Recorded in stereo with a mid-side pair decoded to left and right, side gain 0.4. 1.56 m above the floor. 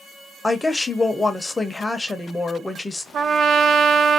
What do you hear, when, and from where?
0.4 s a woman speaking: 25° left, 1.0 m
3.1 s a trumpet: 60° right, 0.7 m